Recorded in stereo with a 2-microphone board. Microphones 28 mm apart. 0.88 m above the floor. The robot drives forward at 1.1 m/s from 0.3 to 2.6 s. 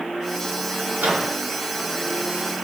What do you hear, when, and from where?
1.0 s a microwave: 65° right (ahead or behind), 5.5 m